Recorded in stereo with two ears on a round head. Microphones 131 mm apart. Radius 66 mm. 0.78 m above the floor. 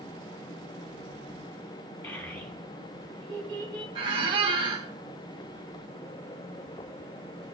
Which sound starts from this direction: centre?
A child speaking, at 2.0 s.